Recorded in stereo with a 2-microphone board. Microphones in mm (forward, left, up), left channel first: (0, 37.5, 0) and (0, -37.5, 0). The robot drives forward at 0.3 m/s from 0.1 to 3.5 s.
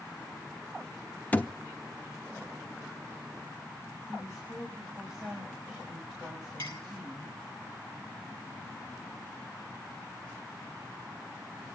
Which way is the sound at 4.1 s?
5° right (ahead or behind).